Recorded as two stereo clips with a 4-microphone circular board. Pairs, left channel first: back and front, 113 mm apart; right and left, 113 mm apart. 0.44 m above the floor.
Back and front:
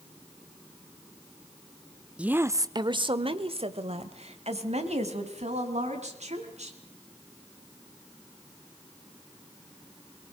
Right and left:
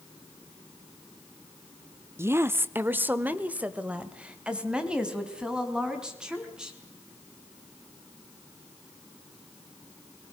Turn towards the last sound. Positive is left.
turn(degrees=5)